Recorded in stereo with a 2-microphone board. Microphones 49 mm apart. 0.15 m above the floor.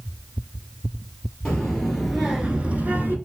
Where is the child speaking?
15° left (ahead or behind), 2 m; by 3.2 s 45° right (ahead or behind), 1.3 m.